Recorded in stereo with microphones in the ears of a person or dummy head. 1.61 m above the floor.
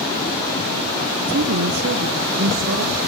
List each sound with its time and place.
1.3 s a woman speaking: 55° right (ahead or behind), 0.7 m; by 3.0 s 70° right (ahead or behind), 2.0 m